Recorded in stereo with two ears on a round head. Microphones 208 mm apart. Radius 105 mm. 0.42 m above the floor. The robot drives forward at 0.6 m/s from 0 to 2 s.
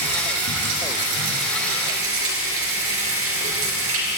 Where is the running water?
80° right, 4 m; by 4.2 s 65° right (ahead or behind), 4 m.